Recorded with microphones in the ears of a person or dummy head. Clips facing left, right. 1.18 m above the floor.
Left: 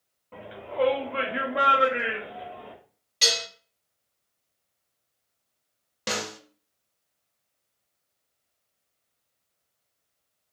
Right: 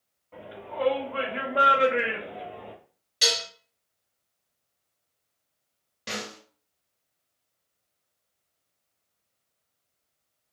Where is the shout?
50° left (ahead or behind), 1.1 m; by 2.7 s 70° right (ahead or behind), 1.0 m.